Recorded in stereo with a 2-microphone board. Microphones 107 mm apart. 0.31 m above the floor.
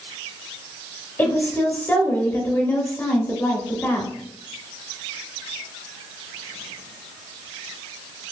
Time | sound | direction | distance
1.2 | a woman speaking | 20° left (ahead or behind) | 0.9 m